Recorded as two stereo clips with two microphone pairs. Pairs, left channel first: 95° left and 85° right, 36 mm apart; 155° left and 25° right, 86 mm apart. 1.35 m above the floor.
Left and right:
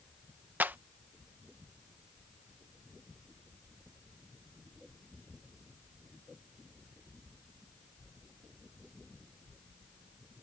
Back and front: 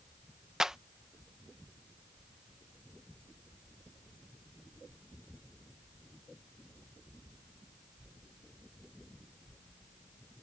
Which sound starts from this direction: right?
A clap, at 0.6 s.